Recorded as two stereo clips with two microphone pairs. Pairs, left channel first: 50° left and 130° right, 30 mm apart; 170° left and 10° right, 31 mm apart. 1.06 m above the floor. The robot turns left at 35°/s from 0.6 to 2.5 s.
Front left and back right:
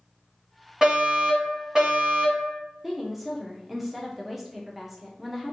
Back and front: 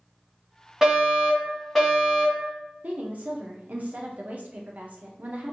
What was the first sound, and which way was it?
A fire alarm, 70° right.